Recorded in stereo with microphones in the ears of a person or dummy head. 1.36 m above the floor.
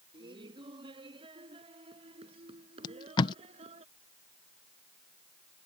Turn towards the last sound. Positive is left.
turn(degrees=25)  # may be behind; listen again after turning